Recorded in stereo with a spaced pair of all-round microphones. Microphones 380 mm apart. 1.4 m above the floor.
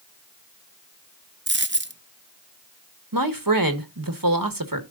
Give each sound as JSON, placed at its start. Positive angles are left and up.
{"t": 1.5, "sound": "a dropped coin", "side_deg": -30, "distance_m": 0.7}
{"t": 3.1, "sound": "a man speaking", "side_deg": -65, "distance_m": 1.6}